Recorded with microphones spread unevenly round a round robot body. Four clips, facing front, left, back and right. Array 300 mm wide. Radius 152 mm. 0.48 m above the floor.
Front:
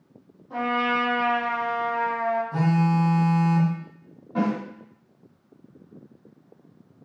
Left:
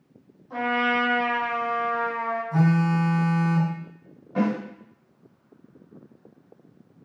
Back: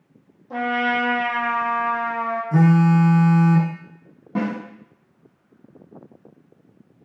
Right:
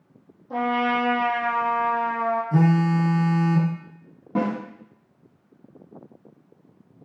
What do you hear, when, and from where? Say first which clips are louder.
0.5 s a trumpet: right 2 dB, back 2 dB; 135° right, 5 m
2.5 s a phone buzzing: even, back 6 dB; 150° right, 2 m
4.3 s a snare drum: even, even; 130° right, 4 m